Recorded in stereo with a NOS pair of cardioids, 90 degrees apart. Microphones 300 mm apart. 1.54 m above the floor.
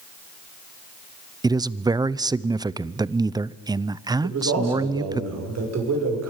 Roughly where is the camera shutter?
I don't hear a camera shutter.